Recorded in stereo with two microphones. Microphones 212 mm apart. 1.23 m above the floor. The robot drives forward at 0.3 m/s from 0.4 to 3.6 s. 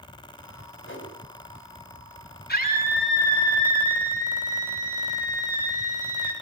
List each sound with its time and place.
0.8 s a whoosh: 70° left (ahead or behind), 5 m
2.5 s a scream: 50° left (ahead or behind), 7 m